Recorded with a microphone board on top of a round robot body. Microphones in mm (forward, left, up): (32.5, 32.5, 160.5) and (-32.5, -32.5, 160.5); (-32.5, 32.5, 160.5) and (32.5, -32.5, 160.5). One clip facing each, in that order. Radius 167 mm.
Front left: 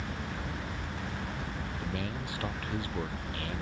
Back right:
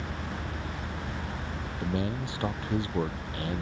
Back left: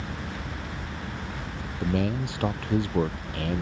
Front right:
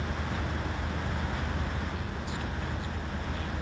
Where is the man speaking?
160° left.